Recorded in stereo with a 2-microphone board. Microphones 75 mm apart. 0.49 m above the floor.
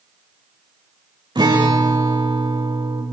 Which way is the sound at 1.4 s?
85° right.